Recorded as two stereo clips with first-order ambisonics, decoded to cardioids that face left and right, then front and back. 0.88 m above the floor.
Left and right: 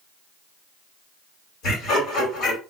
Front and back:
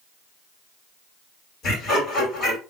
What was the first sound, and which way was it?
Laughter, 55° left.